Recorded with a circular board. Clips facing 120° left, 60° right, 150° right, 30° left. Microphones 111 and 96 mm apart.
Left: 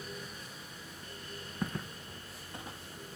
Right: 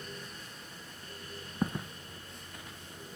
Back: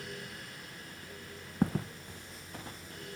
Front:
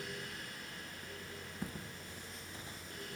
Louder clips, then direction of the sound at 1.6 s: Right 4 dB, back 15 dB; 125° right.